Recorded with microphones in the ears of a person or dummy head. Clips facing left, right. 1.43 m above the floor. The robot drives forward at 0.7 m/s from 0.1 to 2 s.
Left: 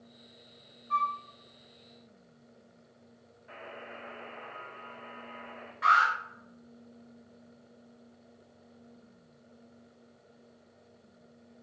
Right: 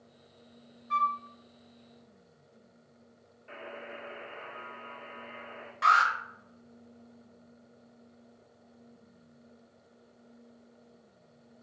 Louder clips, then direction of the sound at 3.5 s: Right 2 dB; 30° right (ahead or behind).